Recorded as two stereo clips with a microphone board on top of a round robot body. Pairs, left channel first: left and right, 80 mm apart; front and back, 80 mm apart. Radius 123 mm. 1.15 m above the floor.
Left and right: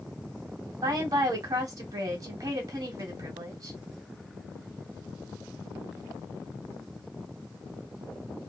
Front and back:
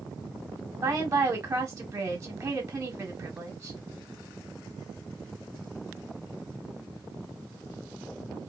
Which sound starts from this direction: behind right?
A woman speaking, at 0.8 s.